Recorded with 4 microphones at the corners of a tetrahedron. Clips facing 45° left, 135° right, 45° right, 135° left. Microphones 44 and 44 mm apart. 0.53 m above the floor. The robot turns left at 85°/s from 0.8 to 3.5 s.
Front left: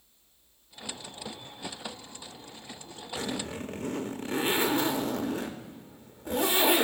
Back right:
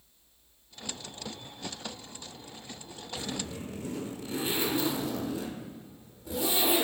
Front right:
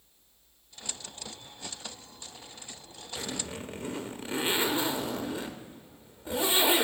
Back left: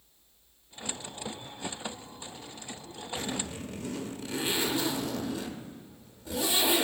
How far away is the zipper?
About 0.7 m.